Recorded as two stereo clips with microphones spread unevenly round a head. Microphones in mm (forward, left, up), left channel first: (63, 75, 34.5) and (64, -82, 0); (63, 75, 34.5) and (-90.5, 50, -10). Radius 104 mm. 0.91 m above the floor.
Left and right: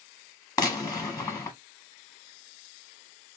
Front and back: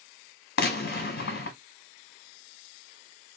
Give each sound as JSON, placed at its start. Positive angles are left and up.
{"t": 0.6, "sound": "a gunshot", "azimuth_deg": 15, "distance_m": 0.9}